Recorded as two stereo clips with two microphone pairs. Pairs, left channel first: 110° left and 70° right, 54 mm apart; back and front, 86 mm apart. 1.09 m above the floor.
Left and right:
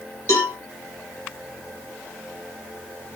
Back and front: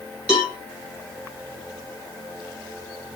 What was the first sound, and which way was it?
A cowbell, 85° left.